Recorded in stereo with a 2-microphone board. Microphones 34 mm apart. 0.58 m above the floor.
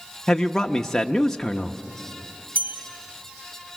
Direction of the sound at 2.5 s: 55° right (ahead or behind).